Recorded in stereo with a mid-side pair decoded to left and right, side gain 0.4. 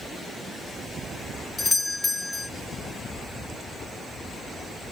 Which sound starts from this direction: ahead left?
A doorbell, at 1.6 s.